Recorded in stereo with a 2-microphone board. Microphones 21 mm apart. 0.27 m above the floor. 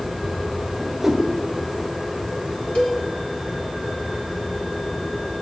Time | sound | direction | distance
0.8 | a whoosh | 15° right (ahead or behind) | 1.5 m
2.8 | a cowbell | 55° left (ahead or behind) | 2.5 m